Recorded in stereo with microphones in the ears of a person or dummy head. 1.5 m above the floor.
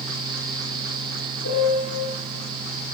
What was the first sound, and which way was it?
A piano, 75° left (ahead or behind).